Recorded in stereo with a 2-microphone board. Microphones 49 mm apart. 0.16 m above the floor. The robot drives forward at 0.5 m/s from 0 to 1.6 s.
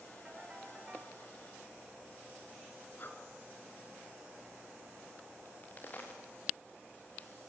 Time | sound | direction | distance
0.2 | a ringtone | 20° right (ahead or behind) | 6 m
3.0 | breathing | 50° left (ahead or behind) | 2 m
5.5 | a crack | 35° left (ahead or behind) | 4 m